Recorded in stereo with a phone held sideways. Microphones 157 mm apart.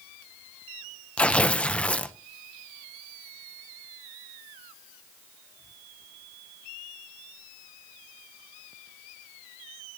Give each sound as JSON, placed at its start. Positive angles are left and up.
{"t": 1.2, "sound": "tearing paper", "side_deg": 5, "distance_m": 0.6}